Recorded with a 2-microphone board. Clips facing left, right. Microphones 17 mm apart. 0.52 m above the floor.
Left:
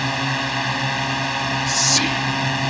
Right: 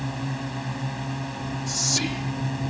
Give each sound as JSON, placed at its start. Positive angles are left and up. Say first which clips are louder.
{"t": 0.0, "sound": "a drone", "louder": "left 10 dB", "side_deg": 60}
{"t": 1.7, "sound": "whispering", "louder": "left 6 dB", "side_deg": 25}